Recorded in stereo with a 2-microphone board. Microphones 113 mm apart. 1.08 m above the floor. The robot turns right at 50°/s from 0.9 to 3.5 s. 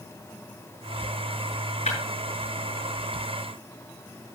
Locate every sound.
1.9 s breaking glass: 80° left, 8 m; by 2.0 s 85° left, 8 m